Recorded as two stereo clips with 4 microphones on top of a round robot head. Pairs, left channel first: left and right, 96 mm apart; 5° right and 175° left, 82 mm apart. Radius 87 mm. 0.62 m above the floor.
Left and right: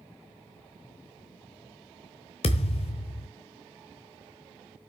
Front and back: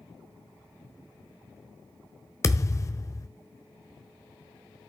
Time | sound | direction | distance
2.4 | a thud | 50° left | 1.0 m